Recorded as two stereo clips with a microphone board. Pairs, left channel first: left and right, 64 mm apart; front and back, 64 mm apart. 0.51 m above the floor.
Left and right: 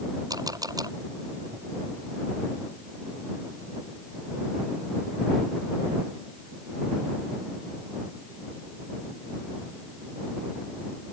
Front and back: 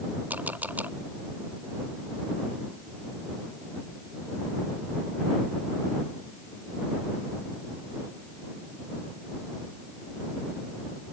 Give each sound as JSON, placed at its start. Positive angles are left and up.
{"t": 0.3, "sound": "a camera shutter", "azimuth_deg": -115}